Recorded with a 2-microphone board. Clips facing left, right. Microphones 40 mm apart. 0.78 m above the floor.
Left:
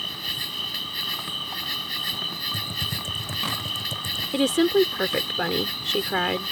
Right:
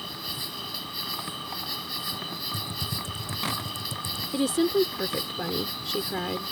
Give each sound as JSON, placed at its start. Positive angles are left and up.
{"t": 0.0, "sound": "an insect", "side_deg": 55}
{"t": 2.5, "sound": "typing on a keyboard", "side_deg": 55}
{"t": 4.3, "sound": "a woman speaking", "side_deg": 65}